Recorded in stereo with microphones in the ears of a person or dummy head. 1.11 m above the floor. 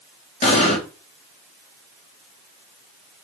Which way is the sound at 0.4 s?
30° left (ahead or behind).